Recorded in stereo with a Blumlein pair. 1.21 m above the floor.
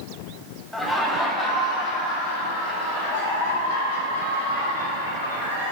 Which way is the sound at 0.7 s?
5° left.